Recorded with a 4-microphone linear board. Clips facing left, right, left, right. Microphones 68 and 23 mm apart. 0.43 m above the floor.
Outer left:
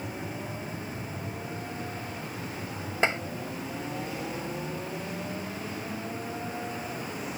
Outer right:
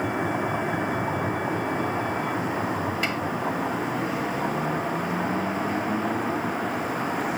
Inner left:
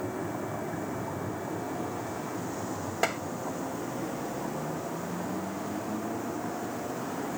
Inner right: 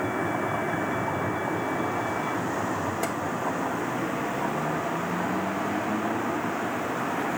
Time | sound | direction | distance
0.0 | a vehicle | 85° right | ?
3.0 | tapping | 30° left (ahead or behind) | ?